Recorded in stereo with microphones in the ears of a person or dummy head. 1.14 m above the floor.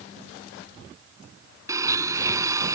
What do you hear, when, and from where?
1.7 s a blender: 20° right (ahead or behind)